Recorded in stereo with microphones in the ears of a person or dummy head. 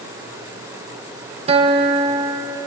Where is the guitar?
35° right (ahead or behind), 1.1 m.